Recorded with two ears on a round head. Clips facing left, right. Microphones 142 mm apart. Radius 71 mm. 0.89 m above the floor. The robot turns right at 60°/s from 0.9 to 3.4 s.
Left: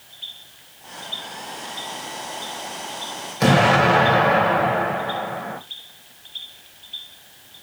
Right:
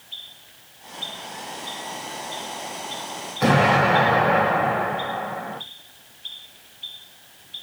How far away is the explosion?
About 2 m.